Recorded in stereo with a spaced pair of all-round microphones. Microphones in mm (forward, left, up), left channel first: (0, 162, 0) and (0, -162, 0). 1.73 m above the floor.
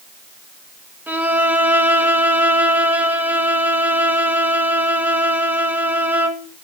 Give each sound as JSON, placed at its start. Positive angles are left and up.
{"t": 1.1, "sound": "a violin", "side_deg": -5, "distance_m": 1.6}